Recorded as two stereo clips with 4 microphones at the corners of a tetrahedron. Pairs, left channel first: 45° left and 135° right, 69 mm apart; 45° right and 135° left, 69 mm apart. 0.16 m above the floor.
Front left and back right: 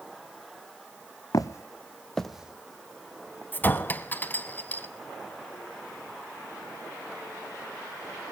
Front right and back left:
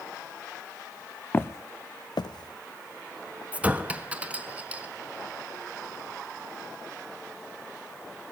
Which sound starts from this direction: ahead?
Footsteps, at 1.3 s.